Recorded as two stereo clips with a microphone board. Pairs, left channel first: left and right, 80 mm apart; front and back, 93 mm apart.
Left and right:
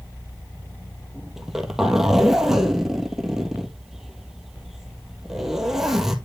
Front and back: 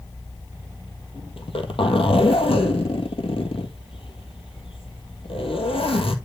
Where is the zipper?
5° right, 1.6 m.